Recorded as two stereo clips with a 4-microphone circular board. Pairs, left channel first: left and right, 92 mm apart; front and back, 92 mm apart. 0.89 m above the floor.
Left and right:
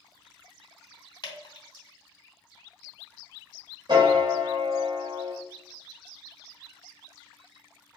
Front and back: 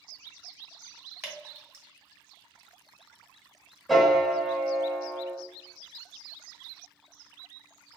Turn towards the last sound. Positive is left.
turn(degrees=-90)